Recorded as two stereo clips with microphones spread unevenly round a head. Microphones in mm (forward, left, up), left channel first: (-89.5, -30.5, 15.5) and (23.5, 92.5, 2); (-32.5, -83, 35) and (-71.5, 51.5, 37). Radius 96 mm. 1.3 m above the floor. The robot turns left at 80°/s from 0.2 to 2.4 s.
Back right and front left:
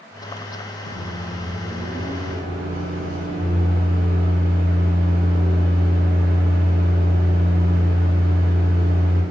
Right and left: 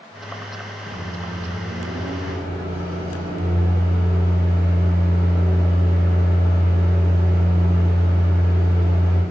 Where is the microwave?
150° right, 0.8 m; by 9.2 s 85° left, 0.8 m.